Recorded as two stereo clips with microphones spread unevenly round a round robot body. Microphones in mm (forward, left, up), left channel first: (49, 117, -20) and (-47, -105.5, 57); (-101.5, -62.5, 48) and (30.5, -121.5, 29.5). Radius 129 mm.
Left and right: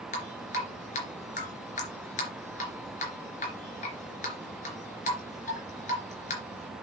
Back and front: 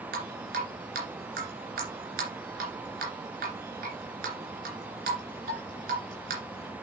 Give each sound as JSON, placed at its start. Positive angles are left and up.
{"t": 0.1, "sound": "dripping", "azimuth_deg": 10, "distance_m": 2.5}